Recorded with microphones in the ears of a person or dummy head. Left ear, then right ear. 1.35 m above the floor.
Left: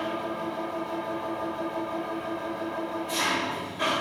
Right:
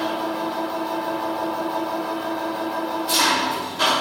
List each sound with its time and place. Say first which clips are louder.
0.0 s an engine running: right 6 dB; 55° right (ahead or behind), 1.7 m